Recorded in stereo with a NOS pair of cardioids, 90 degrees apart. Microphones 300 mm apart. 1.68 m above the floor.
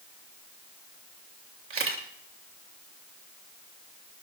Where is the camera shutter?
45° right, 3 m.